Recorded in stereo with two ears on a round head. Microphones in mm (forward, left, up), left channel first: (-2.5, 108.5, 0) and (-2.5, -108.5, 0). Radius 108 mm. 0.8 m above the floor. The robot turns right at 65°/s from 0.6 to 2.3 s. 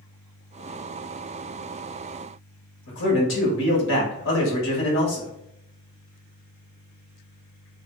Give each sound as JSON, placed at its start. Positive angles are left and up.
{"t": 2.9, "sound": "a man speaking", "side_deg": 55, "distance_m": 1.2}